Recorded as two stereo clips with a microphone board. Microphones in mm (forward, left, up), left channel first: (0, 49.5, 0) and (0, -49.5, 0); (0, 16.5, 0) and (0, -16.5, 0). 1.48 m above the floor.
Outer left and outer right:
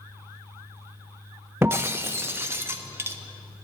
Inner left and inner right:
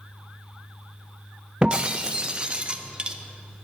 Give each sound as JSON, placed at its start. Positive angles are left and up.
{"t": 1.6, "sound": "breaking glass", "side_deg": -25, "distance_m": 0.6}